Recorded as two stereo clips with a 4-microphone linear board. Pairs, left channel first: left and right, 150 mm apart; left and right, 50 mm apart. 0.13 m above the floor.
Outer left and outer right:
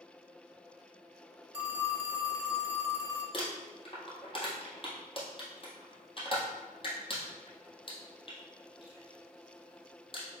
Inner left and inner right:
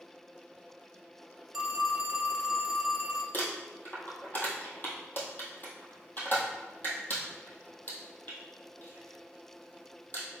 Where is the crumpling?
35° left (ahead or behind), 1.6 m.